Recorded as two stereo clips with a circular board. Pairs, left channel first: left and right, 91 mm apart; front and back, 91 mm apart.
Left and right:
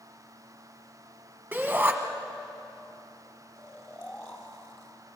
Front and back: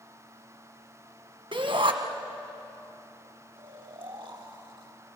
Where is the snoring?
155° left, 3 m.